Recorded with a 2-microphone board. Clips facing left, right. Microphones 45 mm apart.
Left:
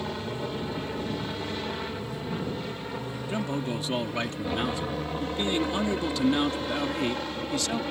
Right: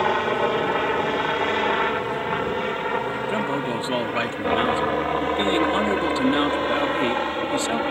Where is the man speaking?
30° right (ahead or behind).